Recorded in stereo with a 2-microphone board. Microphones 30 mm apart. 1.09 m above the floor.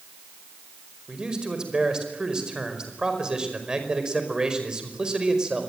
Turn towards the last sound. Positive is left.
turn(degrees=-20)  # may be behind; listen again after turning